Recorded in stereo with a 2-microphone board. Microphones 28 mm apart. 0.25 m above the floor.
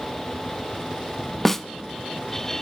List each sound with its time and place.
1.4 s a snare drum: 10° left (ahead or behind), 0.7 m